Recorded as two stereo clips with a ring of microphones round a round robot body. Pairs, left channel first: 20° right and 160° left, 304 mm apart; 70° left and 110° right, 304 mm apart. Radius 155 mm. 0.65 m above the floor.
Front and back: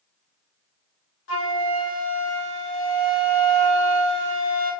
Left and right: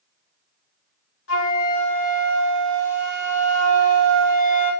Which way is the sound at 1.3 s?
20° left.